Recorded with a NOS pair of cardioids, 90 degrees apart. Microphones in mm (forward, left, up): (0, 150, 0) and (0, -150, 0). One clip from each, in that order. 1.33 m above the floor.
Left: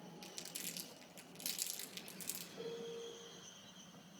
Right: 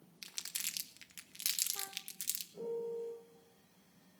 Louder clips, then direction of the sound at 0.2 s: Right 7 dB; 55° right.